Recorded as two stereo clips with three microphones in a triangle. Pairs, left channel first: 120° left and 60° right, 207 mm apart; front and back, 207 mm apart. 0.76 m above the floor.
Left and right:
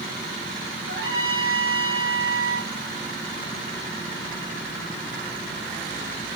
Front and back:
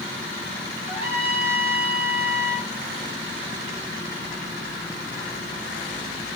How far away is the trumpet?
About 3.5 m.